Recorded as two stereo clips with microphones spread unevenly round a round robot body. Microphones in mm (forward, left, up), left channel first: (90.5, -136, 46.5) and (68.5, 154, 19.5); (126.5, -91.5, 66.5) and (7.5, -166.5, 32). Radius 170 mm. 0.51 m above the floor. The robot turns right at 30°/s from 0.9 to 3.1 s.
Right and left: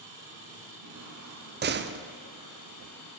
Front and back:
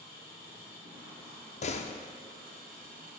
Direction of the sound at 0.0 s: 125° left.